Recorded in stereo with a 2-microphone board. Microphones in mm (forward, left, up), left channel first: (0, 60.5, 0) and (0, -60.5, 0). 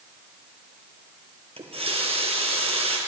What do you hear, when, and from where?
1.6 s a running tap: 55° right (ahead or behind), 1.6 m